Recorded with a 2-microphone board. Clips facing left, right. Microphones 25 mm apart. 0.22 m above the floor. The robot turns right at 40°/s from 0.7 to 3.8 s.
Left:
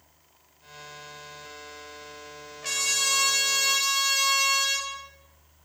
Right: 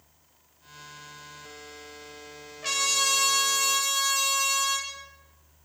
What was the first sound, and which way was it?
A trumpet, 10° right.